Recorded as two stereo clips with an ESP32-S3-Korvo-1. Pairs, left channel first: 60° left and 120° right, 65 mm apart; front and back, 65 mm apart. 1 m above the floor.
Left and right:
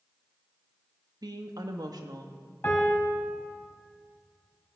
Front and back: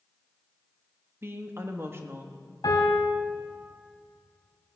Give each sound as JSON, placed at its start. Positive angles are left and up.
{"t": 1.2, "sound": "a woman speaking", "azimuth_deg": -130, "distance_m": 1.1}
{"t": 2.6, "sound": "a piano", "azimuth_deg": 0, "distance_m": 3.0}